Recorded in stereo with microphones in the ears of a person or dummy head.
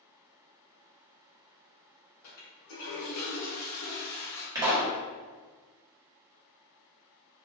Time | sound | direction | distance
2.2 | a toilet flushing | 70° left (ahead or behind) | 1.5 m
4.5 | a pop | 20° right (ahead or behind) | 1.3 m